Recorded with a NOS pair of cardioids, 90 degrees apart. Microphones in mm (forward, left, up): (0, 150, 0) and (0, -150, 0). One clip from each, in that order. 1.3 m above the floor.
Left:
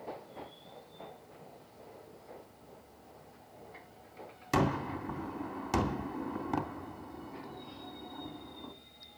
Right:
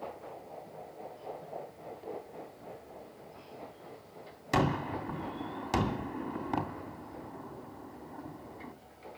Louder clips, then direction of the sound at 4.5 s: Right 1 dB; straight ahead.